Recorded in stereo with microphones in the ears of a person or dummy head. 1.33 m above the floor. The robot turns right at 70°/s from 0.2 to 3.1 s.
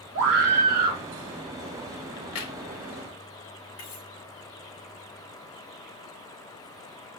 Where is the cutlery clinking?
80° left, 4.5 m.